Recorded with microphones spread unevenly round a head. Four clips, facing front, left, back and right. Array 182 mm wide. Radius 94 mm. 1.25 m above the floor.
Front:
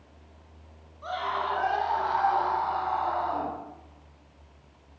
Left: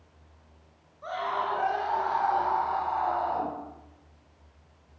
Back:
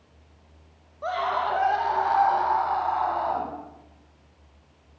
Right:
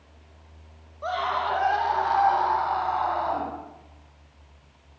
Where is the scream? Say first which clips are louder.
Right 4 dB, back 4 dB; 155° right, 6.5 m; by 3.5 s 165° right, 9.5 m.